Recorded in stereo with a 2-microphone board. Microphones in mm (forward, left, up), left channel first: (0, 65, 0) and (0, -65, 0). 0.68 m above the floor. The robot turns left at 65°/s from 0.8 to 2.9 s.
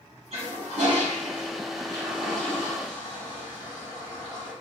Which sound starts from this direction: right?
A toilet flushing, at 0.3 s.